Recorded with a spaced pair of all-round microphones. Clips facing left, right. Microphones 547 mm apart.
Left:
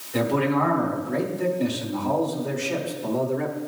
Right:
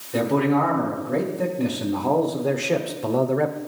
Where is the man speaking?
65° right (ahead or behind), 2 m; by 3.6 s 70° right (ahead or behind), 0.6 m.